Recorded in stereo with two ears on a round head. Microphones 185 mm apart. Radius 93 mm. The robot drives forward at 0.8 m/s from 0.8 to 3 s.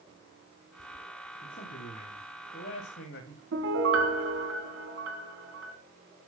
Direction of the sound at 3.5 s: 70° right (ahead or behind).